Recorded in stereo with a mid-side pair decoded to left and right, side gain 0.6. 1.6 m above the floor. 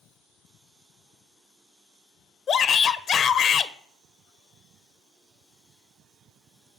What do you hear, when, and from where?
2.5 s a shout: 45° left, 1.0 m